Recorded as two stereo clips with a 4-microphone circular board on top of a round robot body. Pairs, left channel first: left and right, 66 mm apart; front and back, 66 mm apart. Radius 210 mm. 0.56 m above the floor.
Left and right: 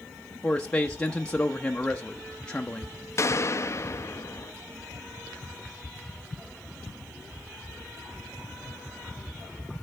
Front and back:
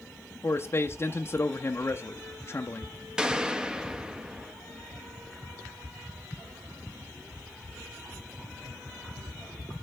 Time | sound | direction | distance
0.4 | a man speaking | 20° left | 1.0 m
3.2 | a gunshot | 105° left | 0.9 m